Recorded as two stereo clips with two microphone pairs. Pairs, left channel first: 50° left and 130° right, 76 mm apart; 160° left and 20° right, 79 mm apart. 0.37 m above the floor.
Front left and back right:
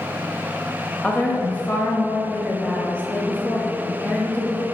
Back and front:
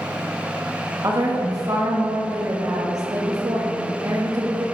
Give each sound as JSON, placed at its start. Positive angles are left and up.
{"t": 1.0, "sound": "a woman speaking", "azimuth_deg": -15, "distance_m": 1.5}